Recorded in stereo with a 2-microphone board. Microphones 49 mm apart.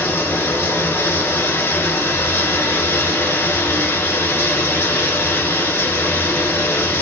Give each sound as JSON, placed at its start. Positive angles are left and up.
{"t": 0.0, "sound": "running water", "side_deg": 70, "distance_m": 1.0}